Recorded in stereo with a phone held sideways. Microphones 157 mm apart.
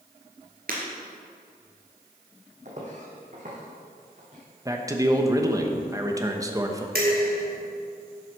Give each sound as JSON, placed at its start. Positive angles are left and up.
{"t": 0.7, "sound": "breaking glass", "side_deg": -65, "distance_m": 3.0}
{"t": 2.6, "sound": "footsteps", "side_deg": -50, "distance_m": 2.5}
{"t": 4.7, "sound": "a man speaking", "side_deg": -20, "distance_m": 1.0}
{"t": 7.0, "sound": "dishes clattering", "side_deg": -80, "distance_m": 3.0}